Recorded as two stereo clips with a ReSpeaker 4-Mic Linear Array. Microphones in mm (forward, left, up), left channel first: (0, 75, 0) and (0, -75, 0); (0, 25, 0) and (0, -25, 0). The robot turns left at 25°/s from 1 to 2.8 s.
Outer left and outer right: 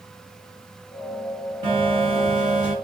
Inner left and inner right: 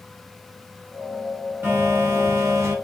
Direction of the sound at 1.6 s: 35° right (ahead or behind).